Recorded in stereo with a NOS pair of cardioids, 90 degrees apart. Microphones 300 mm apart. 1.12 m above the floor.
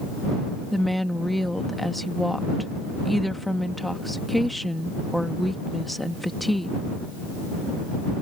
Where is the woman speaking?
Straight ahead.